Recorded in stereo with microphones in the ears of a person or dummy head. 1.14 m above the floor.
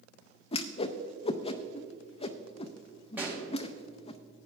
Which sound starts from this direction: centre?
A pop, at 3.2 s.